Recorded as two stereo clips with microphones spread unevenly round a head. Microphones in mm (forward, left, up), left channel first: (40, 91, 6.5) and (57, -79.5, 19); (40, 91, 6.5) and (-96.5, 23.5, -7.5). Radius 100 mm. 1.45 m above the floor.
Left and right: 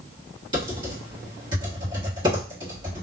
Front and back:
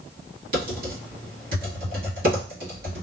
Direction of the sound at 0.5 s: 145° right.